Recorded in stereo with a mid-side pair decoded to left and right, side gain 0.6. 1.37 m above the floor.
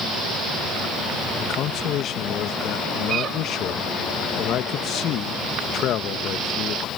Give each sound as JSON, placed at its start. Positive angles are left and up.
{"t": 1.4, "sound": "a man speaking", "azimuth_deg": 60}